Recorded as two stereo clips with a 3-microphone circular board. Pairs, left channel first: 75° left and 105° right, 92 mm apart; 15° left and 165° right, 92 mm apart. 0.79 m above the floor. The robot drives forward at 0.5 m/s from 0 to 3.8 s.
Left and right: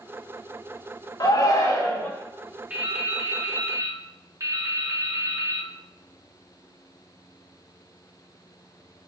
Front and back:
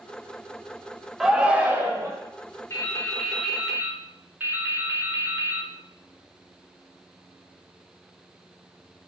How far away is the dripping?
About 0.6 m.